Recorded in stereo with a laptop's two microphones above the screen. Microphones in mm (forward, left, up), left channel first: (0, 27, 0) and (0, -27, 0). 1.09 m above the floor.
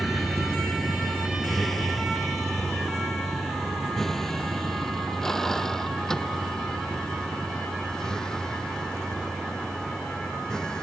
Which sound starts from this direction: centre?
A vehicle, at 0.0 s.